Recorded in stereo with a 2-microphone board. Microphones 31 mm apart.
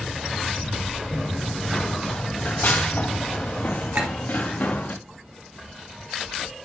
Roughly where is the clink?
Right.